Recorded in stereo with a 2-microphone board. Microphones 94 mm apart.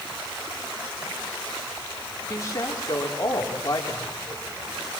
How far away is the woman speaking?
About 5 m.